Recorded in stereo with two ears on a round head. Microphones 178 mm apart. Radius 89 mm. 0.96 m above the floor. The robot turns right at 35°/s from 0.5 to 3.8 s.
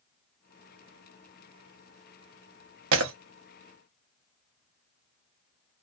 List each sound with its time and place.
2.9 s breaking glass: 75° right (ahead or behind), 0.7 m; by 3.1 s 70° right (ahead or behind), 0.7 m